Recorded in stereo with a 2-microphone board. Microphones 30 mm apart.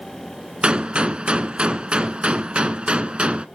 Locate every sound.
0.6 s a gunshot: 40° right (ahead or behind), 0.7 m